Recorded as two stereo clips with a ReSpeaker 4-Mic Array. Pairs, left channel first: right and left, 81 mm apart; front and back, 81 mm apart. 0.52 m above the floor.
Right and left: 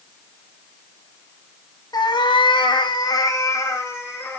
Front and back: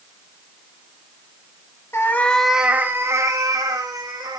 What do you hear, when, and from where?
1.9 s a cat meowing: 55° right, 1.0 m; by 4.4 s 155° right, 2.5 m